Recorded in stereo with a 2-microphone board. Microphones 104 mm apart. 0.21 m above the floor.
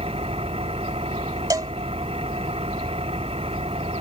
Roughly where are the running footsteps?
I don't hear running footsteps.